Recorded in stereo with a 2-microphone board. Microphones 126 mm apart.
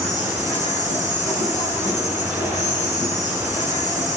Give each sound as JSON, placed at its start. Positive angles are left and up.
{"t": 0.0, "sound": "an insect", "side_deg": 70, "distance_m": 4.0}